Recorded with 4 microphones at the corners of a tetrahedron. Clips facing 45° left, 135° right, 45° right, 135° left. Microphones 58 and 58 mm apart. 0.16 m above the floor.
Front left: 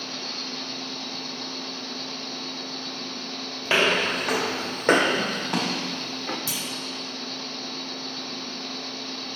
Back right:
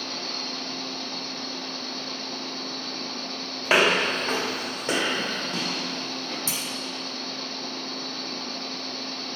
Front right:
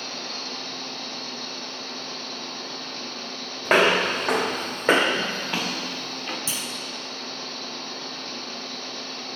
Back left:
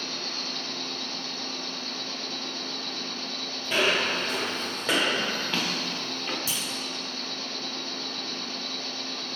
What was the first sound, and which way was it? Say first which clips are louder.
An insect: back right 1 dB, front right 1 dB; 100° right.